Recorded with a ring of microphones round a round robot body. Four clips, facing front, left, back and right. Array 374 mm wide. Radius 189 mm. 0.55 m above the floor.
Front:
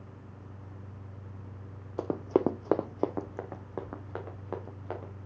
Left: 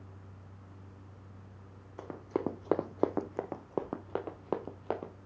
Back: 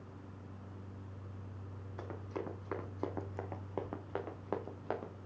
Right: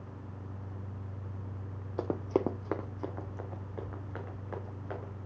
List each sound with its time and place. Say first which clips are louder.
2.0 s running footsteps: right 5 dB, front 16 dB; 35° right, 1.2 m; by 5.1 s 95° left, 3.5 m